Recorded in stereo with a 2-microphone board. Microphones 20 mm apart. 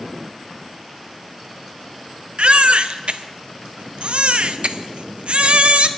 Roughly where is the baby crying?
Right.